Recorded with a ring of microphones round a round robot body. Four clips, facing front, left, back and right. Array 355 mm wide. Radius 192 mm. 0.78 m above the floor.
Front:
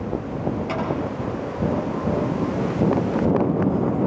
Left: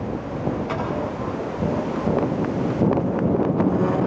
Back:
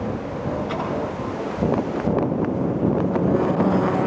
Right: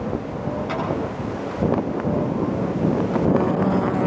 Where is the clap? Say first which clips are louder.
Right 1 dB, front 1 dB; 35° right, 9 m.